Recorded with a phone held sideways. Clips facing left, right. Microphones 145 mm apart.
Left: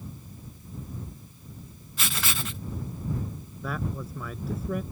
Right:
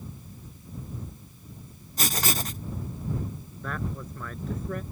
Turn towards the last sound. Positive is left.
turn(degrees=5)  # may be behind; listen again after turning